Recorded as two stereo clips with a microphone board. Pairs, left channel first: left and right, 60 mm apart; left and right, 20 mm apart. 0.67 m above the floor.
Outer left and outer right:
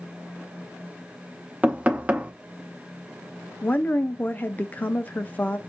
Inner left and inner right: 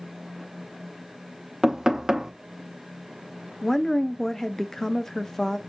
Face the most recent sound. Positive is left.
turn(degrees=30)  # may be behind; listen again after turning